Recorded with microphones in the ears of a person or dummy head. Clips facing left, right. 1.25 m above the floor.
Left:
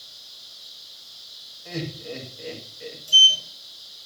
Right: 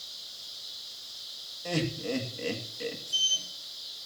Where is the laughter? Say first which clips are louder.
Right 2 dB; 60° right (ahead or behind), 2 m.